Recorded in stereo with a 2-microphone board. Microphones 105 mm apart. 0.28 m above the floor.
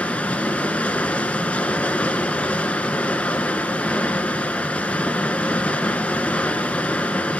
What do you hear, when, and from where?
0.0 s running water: 15° left (ahead or behind), 1.0 m